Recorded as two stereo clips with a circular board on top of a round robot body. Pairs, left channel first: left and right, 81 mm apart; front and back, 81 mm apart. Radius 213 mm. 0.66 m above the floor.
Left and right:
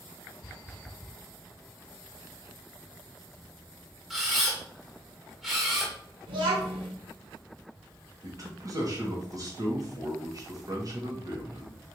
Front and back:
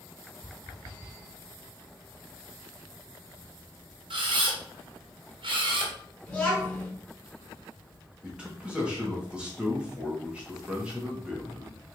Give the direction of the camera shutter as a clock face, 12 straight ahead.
6 o'clock.